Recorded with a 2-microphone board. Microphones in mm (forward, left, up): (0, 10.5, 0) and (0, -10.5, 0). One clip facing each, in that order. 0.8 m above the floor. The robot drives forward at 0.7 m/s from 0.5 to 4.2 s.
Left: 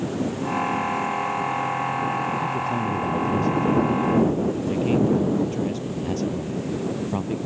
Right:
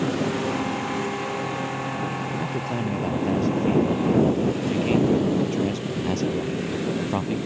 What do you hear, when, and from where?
0.0 s a lawn mower: 30° right (ahead or behind)
2.4 s a man speaking: 15° right (ahead or behind)